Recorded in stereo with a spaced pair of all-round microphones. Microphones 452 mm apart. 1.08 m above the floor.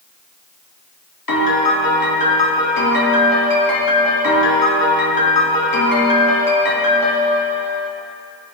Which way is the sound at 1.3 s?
50° left (ahead or behind).